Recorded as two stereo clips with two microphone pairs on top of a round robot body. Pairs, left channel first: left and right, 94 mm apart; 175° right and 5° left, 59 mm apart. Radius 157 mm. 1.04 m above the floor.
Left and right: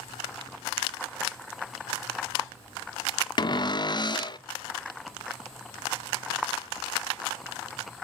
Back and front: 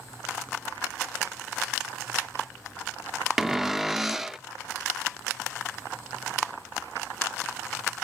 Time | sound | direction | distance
3.4 | a cupboard door | 95° left | 0.6 m